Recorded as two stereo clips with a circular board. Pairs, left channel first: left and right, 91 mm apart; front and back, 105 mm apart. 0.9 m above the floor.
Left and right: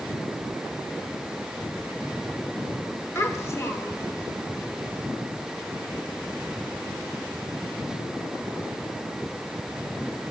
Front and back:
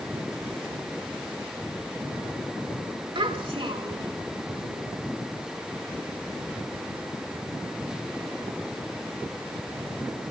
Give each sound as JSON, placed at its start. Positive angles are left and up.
{"t": 3.1, "sound": "a child speaking", "azimuth_deg": 150, "distance_m": 1.9}